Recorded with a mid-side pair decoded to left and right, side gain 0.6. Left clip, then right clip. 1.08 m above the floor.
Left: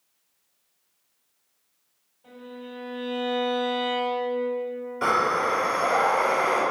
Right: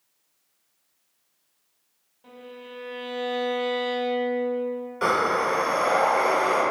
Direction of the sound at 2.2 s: 55° right.